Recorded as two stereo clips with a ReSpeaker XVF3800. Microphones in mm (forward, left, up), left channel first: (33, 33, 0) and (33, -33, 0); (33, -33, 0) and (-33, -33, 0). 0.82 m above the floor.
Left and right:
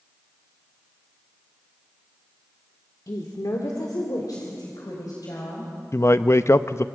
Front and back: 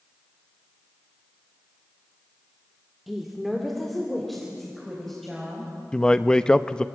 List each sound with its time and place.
3.1 s a woman speaking: 95° left, 1.4 m; by 5.7 s 90° left, 4 m
5.9 s a man speaking: 75° left, 0.5 m